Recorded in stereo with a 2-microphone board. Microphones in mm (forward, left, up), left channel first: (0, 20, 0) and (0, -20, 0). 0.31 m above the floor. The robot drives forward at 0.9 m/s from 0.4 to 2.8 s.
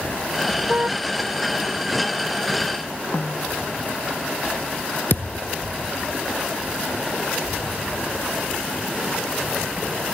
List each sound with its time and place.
0.7 s a car horn: 40° right (ahead or behind)
3.1 s a snare drum: 70° left (ahead or behind)
5.1 s a thud: 65° left (ahead or behind)